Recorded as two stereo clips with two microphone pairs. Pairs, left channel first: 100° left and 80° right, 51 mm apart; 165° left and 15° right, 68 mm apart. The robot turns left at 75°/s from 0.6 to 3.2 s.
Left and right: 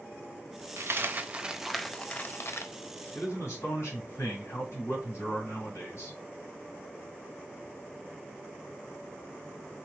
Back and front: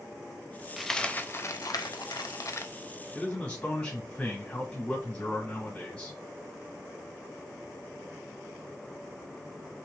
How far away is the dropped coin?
About 0.5 m.